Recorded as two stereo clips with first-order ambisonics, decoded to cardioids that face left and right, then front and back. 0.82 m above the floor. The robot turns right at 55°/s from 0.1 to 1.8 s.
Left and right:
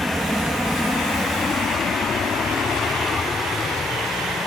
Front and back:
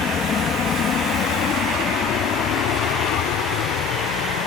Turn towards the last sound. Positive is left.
turn(degrees=15)